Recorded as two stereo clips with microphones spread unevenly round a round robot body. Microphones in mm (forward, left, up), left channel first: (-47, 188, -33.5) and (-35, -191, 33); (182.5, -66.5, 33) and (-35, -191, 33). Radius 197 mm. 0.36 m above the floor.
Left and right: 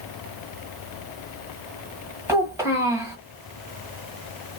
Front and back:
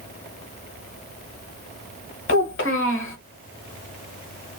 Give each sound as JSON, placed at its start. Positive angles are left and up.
{"t": 2.3, "sound": "a child speaking", "azimuth_deg": 0, "distance_m": 1.2}